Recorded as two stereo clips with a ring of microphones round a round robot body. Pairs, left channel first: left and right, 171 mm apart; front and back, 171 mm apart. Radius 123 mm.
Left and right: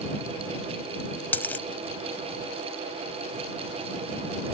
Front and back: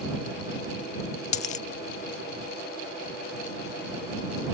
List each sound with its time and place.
1.3 s a dropped coin: 15° left